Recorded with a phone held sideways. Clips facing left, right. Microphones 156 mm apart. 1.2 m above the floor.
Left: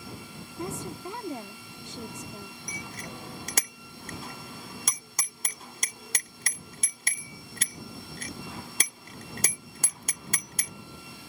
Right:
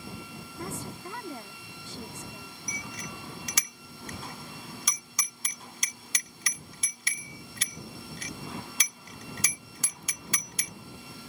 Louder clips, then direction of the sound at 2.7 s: Right 1 dB; 50° left (ahead or behind).